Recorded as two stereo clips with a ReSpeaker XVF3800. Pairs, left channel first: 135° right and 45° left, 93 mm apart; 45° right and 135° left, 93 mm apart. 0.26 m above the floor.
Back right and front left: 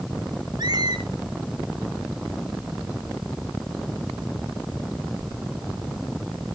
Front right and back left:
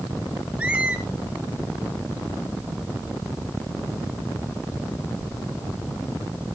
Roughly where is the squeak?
Ahead left.